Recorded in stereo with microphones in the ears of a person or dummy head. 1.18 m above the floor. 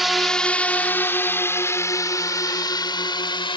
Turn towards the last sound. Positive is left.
turn(degrees=20)  # may be behind; listen again after turning